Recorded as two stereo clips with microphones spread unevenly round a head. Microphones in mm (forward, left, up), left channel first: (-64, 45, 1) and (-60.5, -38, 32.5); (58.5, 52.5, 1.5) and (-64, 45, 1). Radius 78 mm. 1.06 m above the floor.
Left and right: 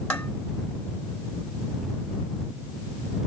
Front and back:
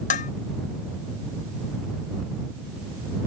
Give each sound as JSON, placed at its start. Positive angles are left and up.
{"t": 0.1, "sound": "dishes clattering", "azimuth_deg": 10}